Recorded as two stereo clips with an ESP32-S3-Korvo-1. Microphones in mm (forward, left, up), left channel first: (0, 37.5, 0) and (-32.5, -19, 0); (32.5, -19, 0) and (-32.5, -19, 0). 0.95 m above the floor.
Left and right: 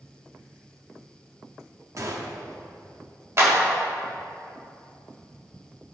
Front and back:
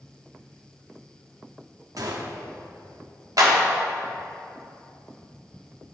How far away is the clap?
About 1.8 m.